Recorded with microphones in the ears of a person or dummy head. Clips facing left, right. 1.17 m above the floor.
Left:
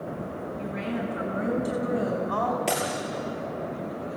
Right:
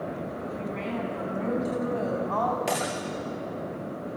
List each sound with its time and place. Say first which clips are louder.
0.6 s a woman speaking: left 2 dB; 5° left (ahead or behind), 8 m; by 2.6 s 10° left (ahead or behind), 5.5 m
2.7 s breaking glass: left 1 dB; 5° right (ahead or behind), 7 m